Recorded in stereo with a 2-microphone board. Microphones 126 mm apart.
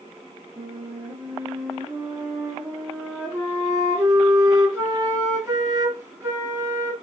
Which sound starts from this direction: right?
A flute, at 0.6 s.